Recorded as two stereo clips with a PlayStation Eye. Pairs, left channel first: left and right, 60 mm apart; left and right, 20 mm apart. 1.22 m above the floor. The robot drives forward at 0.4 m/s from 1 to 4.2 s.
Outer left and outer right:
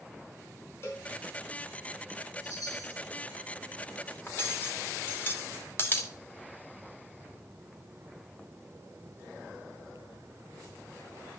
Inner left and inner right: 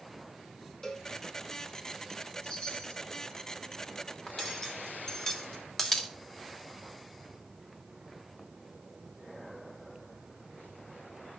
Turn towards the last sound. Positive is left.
turn(degrees=35)  # may be behind; listen again after turning